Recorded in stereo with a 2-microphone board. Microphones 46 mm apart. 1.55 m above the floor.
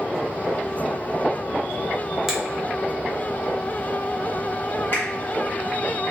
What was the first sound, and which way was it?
A finger snap, 5° right (ahead or behind).